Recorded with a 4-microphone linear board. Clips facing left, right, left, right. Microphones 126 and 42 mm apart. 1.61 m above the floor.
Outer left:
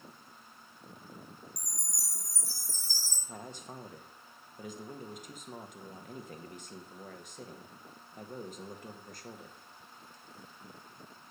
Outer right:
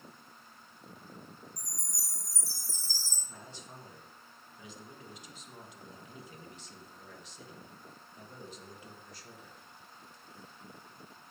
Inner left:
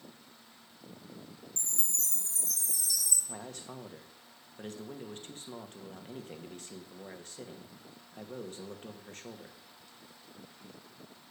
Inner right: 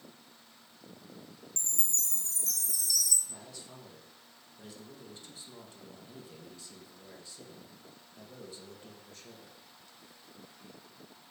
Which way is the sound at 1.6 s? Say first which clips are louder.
Outer left 1 dB, inner right 2 dB; 15° left (ahead or behind).